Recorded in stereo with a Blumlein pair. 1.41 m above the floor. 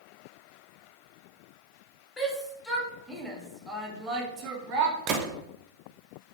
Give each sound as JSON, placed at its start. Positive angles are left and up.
{"t": 2.2, "sound": "a shout", "azimuth_deg": 15, "distance_m": 1.6}
{"t": 5.1, "sound": "a gunshot", "azimuth_deg": -35, "distance_m": 0.7}